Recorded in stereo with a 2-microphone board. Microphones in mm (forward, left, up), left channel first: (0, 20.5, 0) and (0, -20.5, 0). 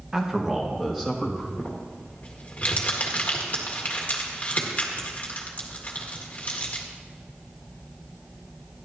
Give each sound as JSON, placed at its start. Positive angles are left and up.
{"t": 0.1, "sound": "a man speaking", "side_deg": -15, "distance_m": 1.5}
{"t": 1.6, "sound": "crumpling", "side_deg": 35, "distance_m": 2.0}